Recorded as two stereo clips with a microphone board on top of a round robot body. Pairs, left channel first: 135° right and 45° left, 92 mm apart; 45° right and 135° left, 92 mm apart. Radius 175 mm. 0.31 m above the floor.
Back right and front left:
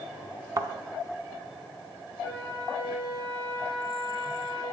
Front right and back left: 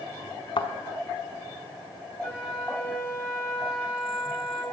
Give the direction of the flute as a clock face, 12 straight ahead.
10 o'clock.